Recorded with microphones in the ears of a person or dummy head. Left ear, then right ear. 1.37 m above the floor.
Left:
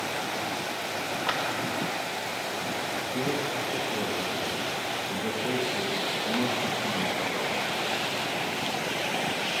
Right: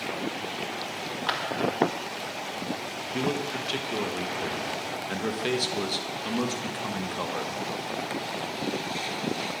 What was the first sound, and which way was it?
A clap, 10° right (ahead or behind).